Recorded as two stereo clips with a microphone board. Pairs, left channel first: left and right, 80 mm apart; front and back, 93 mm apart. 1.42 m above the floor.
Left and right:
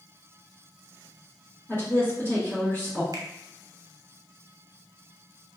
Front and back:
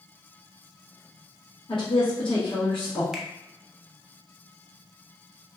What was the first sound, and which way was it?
A woman speaking, 30° left.